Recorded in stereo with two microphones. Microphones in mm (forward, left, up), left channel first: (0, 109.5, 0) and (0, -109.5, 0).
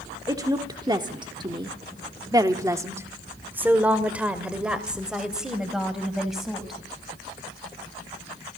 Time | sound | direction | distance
0.3 | a woman speaking | 15° right (ahead or behind) | 1.4 m